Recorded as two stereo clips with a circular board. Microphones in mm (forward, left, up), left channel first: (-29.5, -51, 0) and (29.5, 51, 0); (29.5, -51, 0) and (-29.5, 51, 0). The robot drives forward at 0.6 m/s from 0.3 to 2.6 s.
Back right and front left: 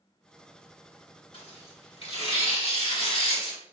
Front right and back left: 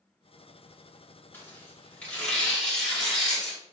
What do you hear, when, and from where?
1.3 s tearing paper: 130° right, 1.8 m; by 3.6 s 145° right, 2.5 m